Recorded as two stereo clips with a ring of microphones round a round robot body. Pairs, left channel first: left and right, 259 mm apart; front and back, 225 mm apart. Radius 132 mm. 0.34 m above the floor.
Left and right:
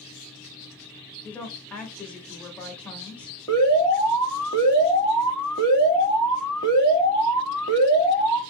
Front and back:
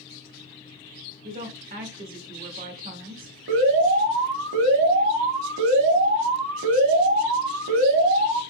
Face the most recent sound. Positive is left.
turn(degrees=165)